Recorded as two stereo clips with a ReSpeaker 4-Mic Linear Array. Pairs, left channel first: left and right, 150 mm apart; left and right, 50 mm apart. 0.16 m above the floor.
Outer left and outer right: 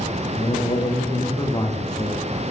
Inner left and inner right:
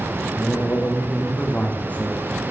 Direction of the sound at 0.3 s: 25° left (ahead or behind).